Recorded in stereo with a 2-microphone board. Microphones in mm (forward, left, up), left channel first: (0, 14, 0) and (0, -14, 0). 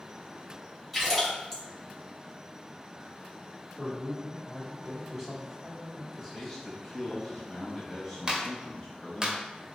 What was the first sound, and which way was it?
A splash, 5° left (ahead or behind).